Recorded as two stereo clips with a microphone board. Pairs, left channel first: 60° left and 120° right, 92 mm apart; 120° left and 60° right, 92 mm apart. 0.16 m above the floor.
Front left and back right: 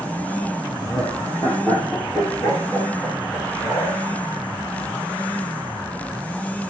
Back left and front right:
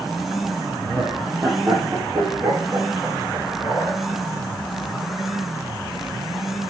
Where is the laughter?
10° right, 4.5 m; by 4.0 s 15° right, 9.5 m.